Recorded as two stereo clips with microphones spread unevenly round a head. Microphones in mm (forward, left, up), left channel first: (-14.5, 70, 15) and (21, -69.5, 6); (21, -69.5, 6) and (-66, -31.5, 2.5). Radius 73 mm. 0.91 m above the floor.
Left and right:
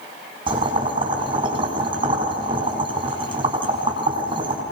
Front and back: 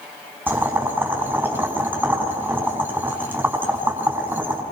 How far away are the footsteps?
I don't hear footsteps.